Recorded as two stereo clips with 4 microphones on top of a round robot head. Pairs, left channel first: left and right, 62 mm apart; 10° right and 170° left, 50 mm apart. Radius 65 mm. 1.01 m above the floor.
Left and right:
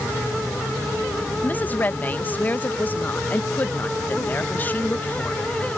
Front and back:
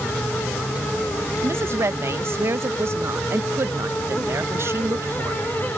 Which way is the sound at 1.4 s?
150° left.